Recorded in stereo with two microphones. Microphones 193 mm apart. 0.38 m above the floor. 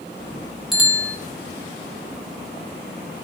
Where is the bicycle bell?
Centre (ahead or behind), 3.5 m.